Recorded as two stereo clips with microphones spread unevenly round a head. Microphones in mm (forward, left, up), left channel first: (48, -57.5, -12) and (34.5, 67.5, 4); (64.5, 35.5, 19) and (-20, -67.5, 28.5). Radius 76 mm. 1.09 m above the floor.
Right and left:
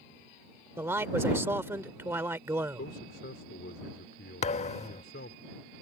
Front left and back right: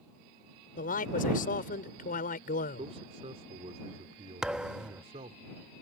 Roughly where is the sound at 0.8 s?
Ahead left.